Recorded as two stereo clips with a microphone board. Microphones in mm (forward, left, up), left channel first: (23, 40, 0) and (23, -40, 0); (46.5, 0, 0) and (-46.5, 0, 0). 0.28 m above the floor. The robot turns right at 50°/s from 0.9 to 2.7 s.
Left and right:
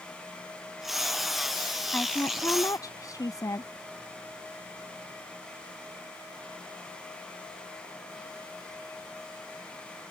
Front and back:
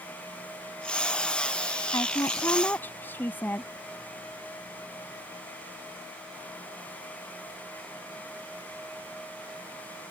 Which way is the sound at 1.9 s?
25° left.